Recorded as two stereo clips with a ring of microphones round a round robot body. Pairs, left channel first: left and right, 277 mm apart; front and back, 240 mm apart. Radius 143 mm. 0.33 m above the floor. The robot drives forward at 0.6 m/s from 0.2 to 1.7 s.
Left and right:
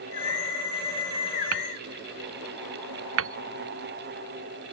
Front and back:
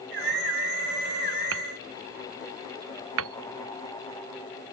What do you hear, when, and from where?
1.5 s hammering: 135° right